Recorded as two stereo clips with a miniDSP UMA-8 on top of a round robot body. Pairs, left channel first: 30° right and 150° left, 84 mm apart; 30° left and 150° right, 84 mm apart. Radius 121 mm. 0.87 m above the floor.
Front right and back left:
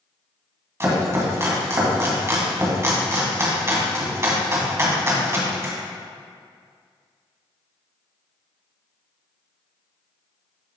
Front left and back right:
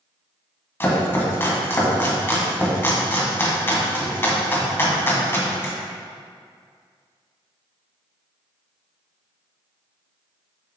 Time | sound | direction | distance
0.8 | chopping | 95° left | 2 m